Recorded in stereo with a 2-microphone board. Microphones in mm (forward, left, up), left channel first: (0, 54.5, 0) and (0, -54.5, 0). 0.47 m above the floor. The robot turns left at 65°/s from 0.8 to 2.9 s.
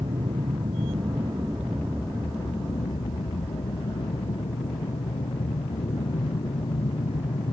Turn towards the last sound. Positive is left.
turn(degrees=65)  # may be behind; listen again after turning